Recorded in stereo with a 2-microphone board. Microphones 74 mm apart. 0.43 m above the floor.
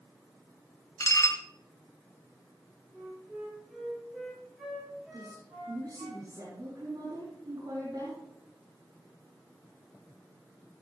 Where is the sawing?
I don't hear sawing.